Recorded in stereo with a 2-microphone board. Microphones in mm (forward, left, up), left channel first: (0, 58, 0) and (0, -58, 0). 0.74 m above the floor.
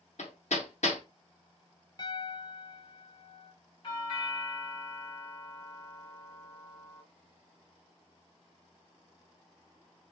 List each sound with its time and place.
0.2 s hammering: 90° left, 1.0 m
2.0 s a piano: 40° left (ahead or behind), 0.8 m
3.8 s a doorbell: 40° left (ahead or behind), 2.5 m